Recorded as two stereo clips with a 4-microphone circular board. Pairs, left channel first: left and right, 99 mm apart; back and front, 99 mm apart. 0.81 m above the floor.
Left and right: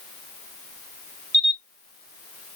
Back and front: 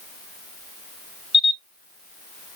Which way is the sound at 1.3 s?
30° left.